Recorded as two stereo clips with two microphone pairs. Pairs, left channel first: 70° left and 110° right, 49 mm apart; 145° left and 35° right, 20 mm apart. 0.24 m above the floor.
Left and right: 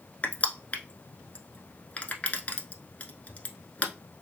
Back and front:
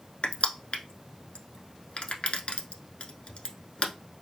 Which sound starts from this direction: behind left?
Crushing, at 0.2 s.